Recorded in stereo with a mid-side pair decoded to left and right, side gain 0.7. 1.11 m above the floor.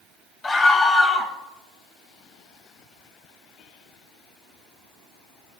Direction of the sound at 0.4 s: 25° left.